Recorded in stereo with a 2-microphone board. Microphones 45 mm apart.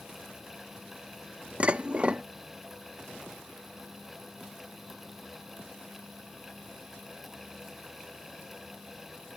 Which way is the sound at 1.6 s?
30° right (ahead or behind).